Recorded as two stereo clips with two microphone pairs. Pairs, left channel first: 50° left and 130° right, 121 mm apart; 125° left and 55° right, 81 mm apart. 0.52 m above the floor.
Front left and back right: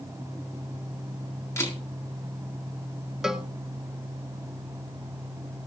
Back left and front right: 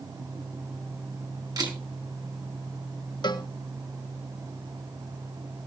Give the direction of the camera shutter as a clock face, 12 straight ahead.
1 o'clock.